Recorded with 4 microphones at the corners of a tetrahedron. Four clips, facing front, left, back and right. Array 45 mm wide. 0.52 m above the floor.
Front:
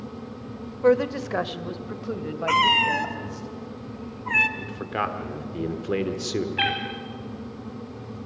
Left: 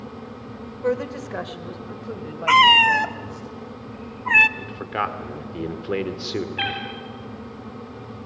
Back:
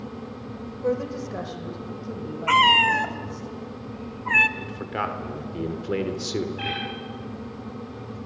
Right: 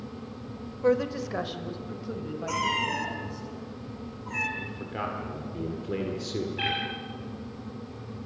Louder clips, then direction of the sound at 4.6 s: Left 7 dB, front 1 dB; 85° left.